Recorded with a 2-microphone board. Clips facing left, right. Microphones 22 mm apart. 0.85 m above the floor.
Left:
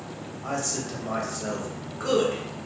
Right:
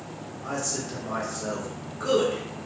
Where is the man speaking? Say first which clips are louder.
Left 1 dB; 10° left (ahead or behind), 0.7 m.